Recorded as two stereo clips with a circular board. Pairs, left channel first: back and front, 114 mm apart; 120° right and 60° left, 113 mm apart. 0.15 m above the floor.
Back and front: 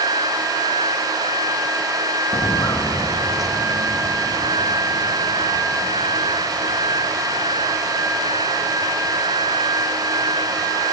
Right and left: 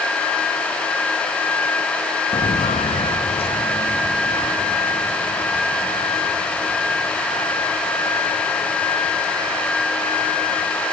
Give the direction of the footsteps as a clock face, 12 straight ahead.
5 o'clock.